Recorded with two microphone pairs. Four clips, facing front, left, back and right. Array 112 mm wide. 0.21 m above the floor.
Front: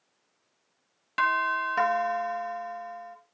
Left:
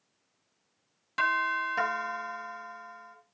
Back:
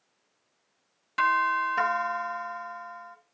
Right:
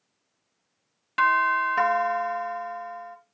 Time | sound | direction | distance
1.2 | a doorbell | 35° right | 2 m